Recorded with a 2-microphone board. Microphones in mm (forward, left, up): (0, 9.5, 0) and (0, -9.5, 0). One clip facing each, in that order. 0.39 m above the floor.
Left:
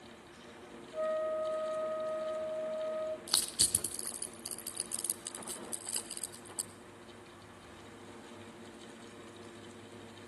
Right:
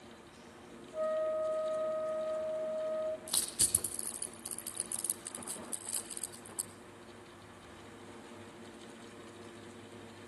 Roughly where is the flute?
Centre.